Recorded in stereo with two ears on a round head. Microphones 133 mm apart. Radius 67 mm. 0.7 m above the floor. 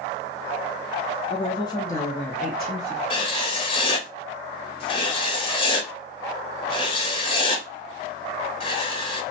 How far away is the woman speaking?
About 0.7 m.